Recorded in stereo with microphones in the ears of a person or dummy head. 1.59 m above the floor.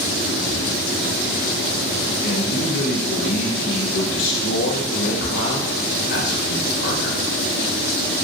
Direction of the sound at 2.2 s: 70° left (ahead or behind).